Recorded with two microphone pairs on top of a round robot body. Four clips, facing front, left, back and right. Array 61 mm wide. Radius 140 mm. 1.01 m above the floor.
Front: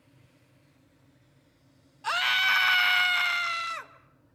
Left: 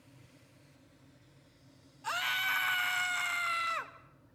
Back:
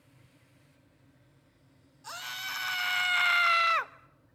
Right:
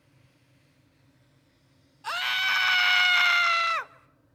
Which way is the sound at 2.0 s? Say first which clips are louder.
Right 5 dB, front 14 dB; 15° right.